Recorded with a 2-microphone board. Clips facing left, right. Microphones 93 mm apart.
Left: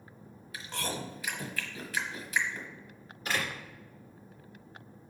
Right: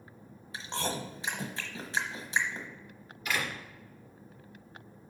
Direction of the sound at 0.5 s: 30° right (ahead or behind).